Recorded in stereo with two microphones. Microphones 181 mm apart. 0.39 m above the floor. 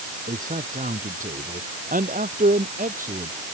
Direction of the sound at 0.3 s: 45° right (ahead or behind).